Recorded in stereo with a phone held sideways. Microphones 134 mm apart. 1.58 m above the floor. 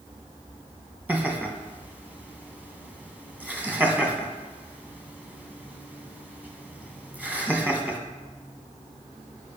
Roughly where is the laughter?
Centre.